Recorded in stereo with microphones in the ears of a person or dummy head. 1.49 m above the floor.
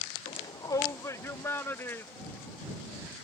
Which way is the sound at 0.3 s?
25° left (ahead or behind).